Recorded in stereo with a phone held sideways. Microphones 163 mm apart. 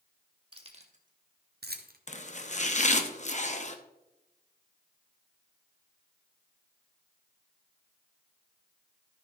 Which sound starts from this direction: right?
Keys jangling, at 0.5 s.